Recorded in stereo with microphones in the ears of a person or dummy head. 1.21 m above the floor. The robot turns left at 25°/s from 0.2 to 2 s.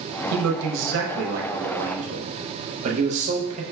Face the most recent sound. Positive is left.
turn(degrees=-140)